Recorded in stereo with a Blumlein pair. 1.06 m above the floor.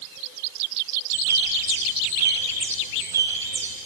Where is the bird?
65° right, 4 m.